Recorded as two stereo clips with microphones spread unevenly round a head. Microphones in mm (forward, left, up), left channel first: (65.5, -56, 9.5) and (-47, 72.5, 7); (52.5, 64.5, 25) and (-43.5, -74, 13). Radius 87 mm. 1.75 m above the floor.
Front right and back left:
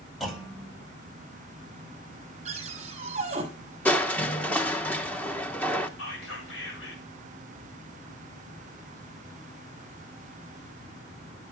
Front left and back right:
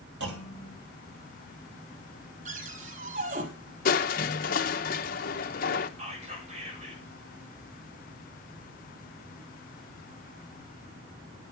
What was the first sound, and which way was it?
A clunk, 140° right.